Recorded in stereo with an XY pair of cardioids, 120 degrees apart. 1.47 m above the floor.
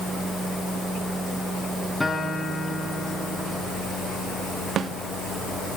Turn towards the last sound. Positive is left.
turn(degrees=-50)